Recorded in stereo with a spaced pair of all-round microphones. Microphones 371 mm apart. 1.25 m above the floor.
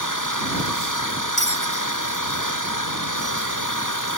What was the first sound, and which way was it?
An engine running, 55° left (ahead or behind).